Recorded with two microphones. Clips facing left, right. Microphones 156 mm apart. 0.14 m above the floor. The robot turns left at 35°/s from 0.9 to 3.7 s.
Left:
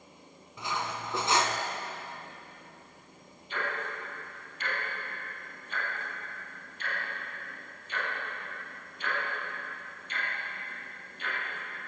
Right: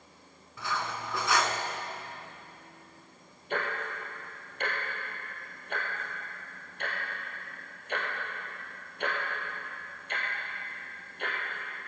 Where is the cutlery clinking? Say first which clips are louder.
Even; 20° left (ahead or behind), 0.8 m; by 1.6 s 30° left (ahead or behind), 0.8 m.